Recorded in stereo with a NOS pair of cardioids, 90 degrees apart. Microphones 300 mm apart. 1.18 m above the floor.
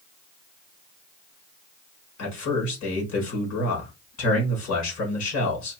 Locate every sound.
2.2 s a man speaking: 60° left, 4 m